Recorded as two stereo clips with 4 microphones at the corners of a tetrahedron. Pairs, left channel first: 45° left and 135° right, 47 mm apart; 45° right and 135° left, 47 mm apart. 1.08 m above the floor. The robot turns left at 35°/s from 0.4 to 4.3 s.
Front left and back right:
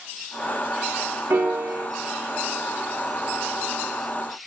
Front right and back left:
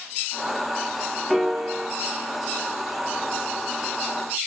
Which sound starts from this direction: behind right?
A piano, at 1.3 s.